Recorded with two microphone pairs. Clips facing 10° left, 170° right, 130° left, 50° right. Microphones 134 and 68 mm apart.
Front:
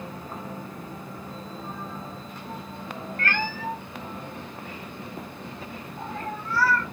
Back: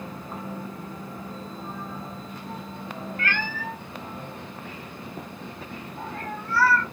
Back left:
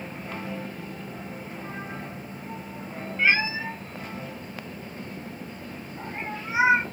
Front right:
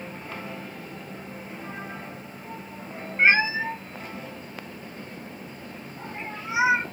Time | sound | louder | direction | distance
3.2 | a cat meowing | front 3 dB, front right 3 dB | 15° right | 0.7 m